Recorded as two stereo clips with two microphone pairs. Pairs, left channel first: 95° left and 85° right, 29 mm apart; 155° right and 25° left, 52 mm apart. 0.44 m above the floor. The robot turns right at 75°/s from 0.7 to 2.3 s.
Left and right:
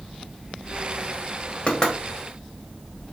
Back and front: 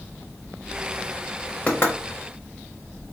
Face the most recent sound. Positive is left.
turn(degrees=-160)